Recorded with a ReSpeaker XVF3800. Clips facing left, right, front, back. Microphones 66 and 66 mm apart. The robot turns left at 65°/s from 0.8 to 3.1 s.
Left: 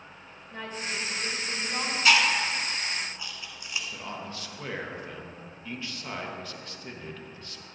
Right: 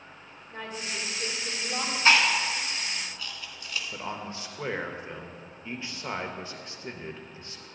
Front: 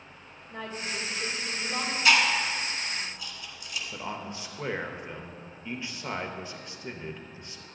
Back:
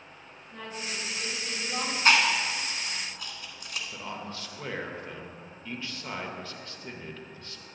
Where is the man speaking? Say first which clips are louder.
Right 2 dB, front 2 dB; 55° right, 0.8 m.